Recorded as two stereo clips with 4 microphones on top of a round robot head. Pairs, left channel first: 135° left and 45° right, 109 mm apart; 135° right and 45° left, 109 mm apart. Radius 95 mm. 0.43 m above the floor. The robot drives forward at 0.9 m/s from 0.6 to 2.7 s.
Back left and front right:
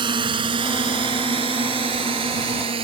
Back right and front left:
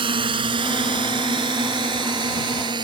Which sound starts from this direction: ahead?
A drone, at 0.0 s.